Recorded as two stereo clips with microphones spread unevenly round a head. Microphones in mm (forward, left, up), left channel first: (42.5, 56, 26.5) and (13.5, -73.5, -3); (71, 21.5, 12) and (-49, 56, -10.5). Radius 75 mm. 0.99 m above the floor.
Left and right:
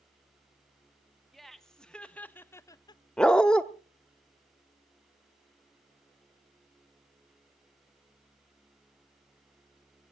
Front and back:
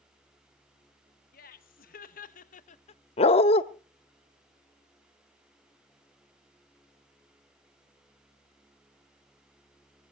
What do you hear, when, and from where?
1.3 s laughter: 15° right, 1.5 m; by 3.0 s 20° left, 0.6 m
3.2 s a dog barking: straight ahead, 0.8 m